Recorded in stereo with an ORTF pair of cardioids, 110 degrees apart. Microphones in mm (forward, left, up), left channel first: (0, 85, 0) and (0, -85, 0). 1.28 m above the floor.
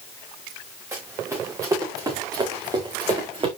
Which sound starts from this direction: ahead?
Running footsteps, at 0.9 s.